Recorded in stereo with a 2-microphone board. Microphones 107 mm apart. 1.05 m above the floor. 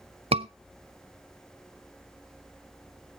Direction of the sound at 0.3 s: 70° right (ahead or behind).